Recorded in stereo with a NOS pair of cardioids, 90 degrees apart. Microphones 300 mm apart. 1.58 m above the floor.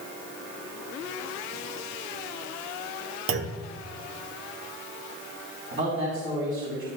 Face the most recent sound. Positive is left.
turn(degrees=-45)